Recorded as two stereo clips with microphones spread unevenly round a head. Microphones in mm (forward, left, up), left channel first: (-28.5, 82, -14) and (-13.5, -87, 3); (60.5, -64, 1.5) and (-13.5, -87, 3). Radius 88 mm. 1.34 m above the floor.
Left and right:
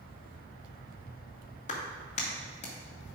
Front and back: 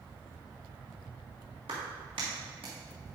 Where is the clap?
145° left, 2.5 m.